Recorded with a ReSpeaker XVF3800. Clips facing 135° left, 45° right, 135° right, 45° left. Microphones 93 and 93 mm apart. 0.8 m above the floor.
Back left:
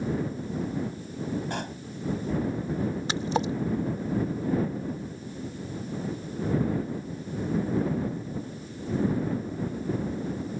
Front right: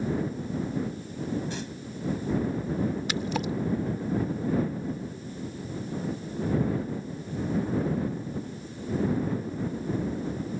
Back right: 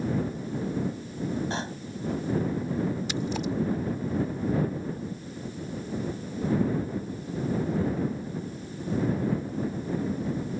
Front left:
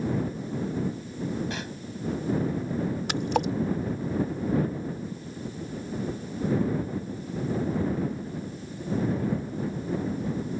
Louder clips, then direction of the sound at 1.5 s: Back left 2 dB, back right 3 dB; 165° left.